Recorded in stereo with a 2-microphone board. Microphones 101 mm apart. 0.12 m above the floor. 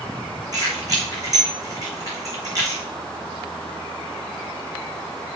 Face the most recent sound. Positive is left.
turn(degrees=-35)  # may be behind; listen again after turning